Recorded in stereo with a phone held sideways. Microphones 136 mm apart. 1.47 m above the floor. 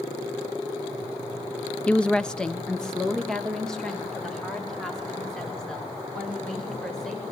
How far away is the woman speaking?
About 0.5 m.